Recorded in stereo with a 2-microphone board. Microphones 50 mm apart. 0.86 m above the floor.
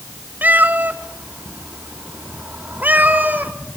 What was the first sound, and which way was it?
A cat meowing, 35° right (ahead or behind).